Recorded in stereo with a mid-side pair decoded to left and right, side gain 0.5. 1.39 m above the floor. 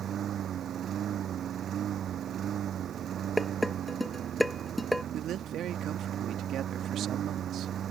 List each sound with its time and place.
0.0 s a lawn mower: 55° right
3.4 s dishes clattering: straight ahead
5.1 s a man speaking: 65° right